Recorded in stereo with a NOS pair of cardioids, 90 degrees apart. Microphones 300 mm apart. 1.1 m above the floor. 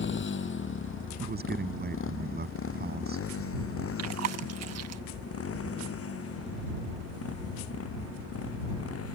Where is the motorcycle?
40° left; by 9.2 s 55° left.